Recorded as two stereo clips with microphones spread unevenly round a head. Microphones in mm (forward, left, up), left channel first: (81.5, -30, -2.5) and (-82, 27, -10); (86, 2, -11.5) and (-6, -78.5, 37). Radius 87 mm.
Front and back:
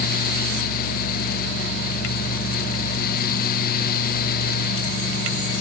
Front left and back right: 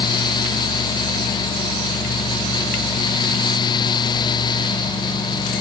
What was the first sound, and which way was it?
Only background noise.